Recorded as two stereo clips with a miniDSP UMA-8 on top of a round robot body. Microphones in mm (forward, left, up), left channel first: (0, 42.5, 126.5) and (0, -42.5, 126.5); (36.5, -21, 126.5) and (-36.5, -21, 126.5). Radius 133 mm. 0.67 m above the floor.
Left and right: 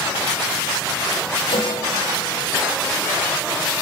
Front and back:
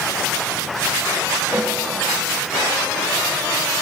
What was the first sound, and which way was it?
A snare drum, 105° left.